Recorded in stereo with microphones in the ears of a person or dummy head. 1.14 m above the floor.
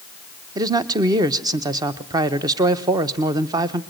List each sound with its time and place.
0.6 s a man speaking: 20° right (ahead or behind), 0.8 m